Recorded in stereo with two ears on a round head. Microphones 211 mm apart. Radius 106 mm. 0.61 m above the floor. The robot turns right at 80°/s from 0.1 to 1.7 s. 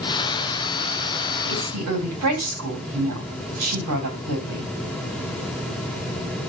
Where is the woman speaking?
60° right (ahead or behind), 4 m; by 4.7 s 75° right (ahead or behind), 4 m.